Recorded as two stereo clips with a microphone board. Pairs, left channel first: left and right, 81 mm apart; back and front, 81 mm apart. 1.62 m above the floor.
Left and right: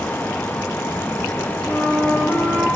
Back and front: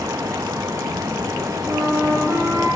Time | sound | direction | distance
1.7 | a flute | 25° left | 1.4 m